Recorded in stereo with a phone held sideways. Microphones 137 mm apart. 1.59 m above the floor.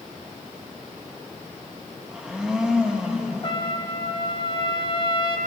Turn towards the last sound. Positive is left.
turn(degrees=35)  # may be behind; listen again after turning